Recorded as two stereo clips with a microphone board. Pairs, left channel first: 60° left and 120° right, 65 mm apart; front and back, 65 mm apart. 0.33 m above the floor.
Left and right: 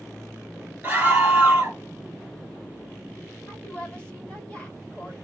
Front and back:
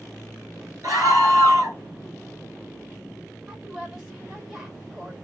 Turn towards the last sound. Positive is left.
turn(degrees=110)